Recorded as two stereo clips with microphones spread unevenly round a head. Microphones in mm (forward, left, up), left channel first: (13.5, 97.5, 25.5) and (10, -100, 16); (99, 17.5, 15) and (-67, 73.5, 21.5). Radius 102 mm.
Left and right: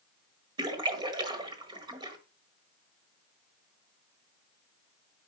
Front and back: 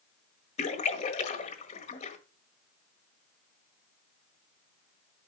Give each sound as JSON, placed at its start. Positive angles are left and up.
{"t": 0.6, "sound": "a splash", "azimuth_deg": -35, "distance_m": 1.3}